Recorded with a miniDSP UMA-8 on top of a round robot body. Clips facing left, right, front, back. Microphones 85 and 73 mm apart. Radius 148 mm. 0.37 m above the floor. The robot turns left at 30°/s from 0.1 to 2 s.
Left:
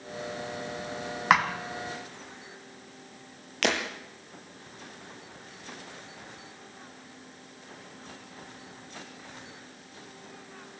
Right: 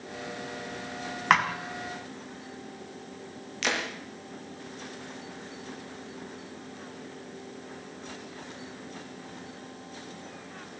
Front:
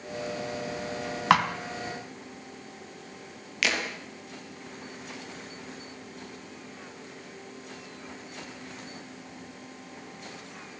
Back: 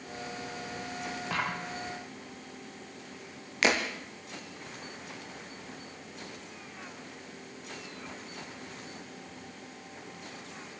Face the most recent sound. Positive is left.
turn(degrees=120)